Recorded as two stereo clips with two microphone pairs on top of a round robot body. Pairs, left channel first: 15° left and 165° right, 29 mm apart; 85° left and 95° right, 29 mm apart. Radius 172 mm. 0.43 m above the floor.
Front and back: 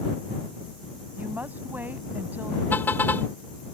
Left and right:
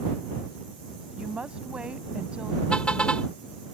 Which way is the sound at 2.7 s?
25° left.